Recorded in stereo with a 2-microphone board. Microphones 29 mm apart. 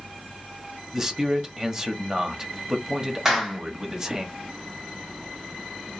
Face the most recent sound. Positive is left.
turn(degrees=-10)  # may be behind; listen again after turning